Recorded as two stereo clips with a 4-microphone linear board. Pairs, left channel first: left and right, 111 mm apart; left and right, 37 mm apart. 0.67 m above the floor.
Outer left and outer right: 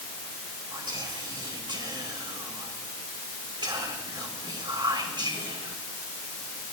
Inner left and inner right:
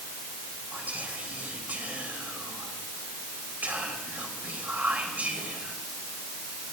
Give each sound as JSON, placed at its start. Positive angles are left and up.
{"t": 0.7, "sound": "whispering", "side_deg": -45, "distance_m": 3.0}